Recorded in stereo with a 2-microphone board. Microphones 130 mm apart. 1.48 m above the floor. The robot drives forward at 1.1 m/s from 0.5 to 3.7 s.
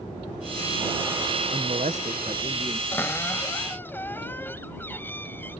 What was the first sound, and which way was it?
A man speaking, 50° right (ahead or behind).